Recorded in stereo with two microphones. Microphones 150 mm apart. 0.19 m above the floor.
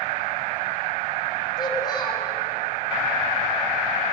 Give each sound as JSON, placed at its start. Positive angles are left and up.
{"t": 1.6, "sound": "a child speaking", "side_deg": 30, "distance_m": 6.5}